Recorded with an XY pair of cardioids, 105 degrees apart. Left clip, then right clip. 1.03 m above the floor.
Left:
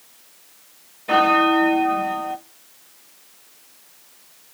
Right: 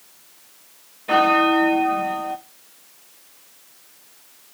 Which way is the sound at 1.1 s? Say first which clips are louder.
Even; 5° left.